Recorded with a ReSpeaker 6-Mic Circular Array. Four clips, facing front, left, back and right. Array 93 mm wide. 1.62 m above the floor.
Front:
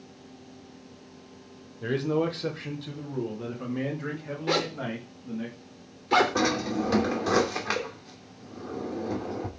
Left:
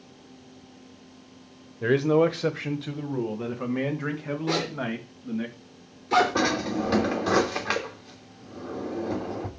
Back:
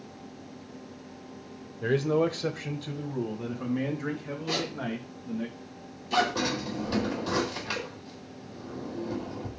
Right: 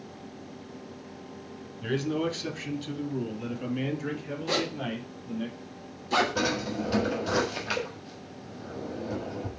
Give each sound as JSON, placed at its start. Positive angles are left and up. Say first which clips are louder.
{"t": 1.8, "sound": "a man speaking", "louder": "left 8 dB, back 1 dB", "azimuth_deg": 100, "distance_m": 1.3}
{"t": 4.5, "sound": "a zipper", "louder": "left 1 dB, front 4 dB", "azimuth_deg": 20, "distance_m": 3.5}
{"t": 6.3, "sound": "a drawer", "louder": "left 4 dB, front 5 dB", "azimuth_deg": 55, "distance_m": 3.0}